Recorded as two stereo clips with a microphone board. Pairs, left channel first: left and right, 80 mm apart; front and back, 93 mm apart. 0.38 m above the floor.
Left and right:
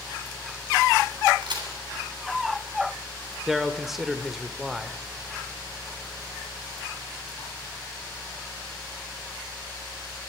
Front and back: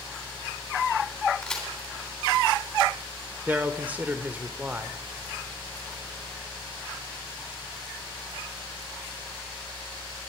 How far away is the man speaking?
About 0.8 m.